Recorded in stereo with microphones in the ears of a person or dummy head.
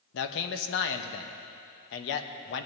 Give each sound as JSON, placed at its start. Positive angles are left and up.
{"t": 0.1, "sound": "a man speaking", "side_deg": 65, "distance_m": 1.0}